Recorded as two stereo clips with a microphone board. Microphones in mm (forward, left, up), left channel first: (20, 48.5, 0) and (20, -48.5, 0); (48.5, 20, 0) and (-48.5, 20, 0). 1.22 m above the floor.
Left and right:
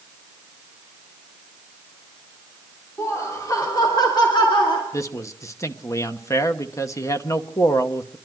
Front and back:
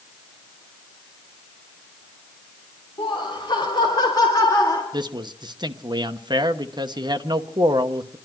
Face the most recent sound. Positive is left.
turn(degrees=145)